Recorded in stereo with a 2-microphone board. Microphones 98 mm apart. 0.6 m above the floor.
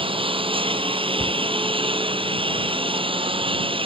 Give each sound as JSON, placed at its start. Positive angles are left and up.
{"t": 0.0, "sound": "a lawn mower", "side_deg": -60}
{"t": 1.2, "sound": "a cupboard door", "side_deg": 60}